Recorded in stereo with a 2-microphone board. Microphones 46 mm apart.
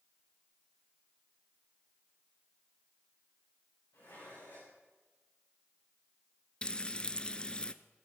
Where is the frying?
25° left (ahead or behind), 0.5 m.